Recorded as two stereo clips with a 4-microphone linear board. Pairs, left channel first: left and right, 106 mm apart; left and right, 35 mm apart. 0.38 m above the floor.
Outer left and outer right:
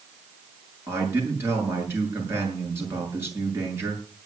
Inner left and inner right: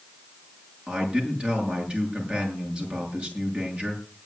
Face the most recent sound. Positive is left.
turn(degrees=-25)  # may be behind; listen again after turning